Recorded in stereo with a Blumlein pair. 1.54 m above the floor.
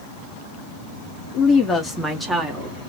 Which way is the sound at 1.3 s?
30° left.